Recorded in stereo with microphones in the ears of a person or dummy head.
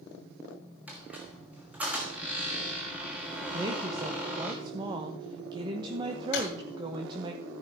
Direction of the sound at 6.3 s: 60° left (ahead or behind).